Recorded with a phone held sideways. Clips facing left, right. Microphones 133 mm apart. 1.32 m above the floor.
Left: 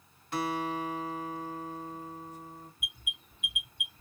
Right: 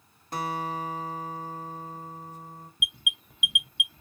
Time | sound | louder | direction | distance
0.3 | a guitar | even | 40° right (ahead or behind) | 1.3 m
2.8 | an alarm | right 7 dB | 85° right | 0.7 m